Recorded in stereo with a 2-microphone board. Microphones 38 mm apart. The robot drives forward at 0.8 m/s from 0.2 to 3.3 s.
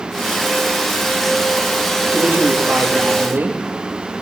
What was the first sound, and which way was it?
A woman speaking, 90° right.